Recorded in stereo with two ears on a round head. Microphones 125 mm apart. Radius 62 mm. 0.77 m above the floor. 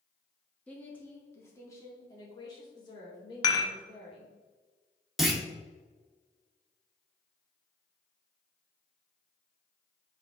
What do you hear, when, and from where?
0.7 s a woman speaking: 10° left (ahead or behind), 1.8 m; by 4.4 s 40° left (ahead or behind), 3.5 m
3.4 s dishes clattering: 30° left (ahead or behind), 1.1 m
5.2 s a clunk: centre (ahead or behind), 1.0 m